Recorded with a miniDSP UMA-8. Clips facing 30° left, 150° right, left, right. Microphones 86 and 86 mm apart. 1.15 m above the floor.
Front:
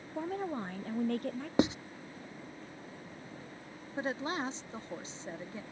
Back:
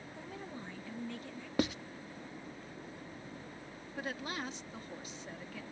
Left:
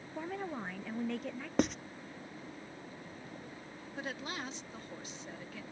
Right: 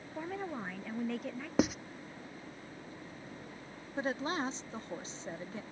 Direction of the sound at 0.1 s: Straight ahead.